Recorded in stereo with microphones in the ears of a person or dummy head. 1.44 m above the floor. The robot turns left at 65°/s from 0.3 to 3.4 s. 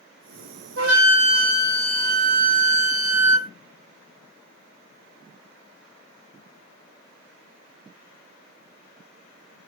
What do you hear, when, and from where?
0.8 s a flute: 90° right, 0.9 m; by 3.5 s 95° left, 0.9 m